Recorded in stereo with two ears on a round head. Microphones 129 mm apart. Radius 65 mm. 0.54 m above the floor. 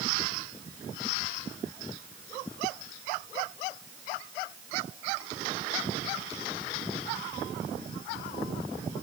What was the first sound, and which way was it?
Only background noise.